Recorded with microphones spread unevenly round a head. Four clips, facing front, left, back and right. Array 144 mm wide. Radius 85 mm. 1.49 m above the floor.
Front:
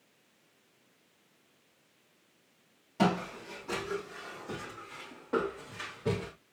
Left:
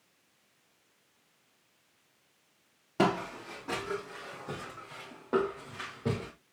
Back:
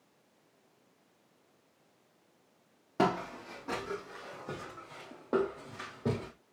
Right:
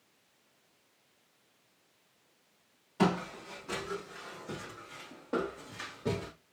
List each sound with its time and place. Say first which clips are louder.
3.0 s footsteps: left 1 dB, front 1 dB; 135° left, 3 m; by 6.3 s straight behind, 3 m